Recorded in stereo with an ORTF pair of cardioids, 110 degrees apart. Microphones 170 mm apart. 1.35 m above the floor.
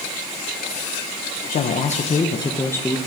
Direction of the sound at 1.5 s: 60° left.